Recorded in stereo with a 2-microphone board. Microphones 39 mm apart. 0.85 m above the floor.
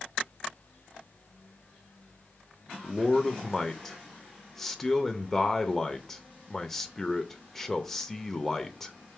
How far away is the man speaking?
About 0.5 m.